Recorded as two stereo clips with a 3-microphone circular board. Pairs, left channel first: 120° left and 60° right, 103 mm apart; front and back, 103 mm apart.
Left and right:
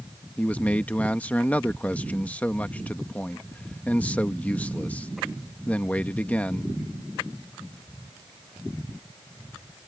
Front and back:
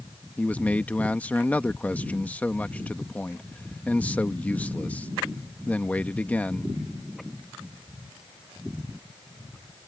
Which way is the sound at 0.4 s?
60° left.